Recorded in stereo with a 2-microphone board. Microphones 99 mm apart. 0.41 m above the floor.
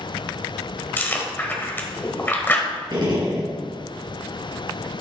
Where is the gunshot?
45° right (ahead or behind), 3.5 m.